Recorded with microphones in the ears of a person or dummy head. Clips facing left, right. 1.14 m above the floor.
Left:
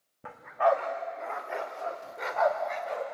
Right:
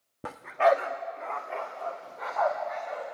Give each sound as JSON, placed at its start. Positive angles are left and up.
{"t": 0.2, "sound": "a dog barking", "side_deg": -50, "distance_m": 0.9}